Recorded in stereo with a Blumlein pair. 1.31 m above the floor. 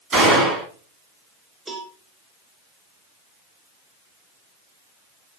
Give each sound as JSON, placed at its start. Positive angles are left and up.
{"t": 0.1, "sound": "a gunshot", "azimuth_deg": -20, "distance_m": 1.9}
{"t": 1.7, "sound": "a cowbell", "azimuth_deg": -5, "distance_m": 1.0}